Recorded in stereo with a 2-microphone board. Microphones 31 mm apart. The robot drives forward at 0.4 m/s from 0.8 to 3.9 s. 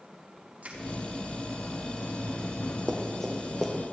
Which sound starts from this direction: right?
Crushing, at 0.6 s.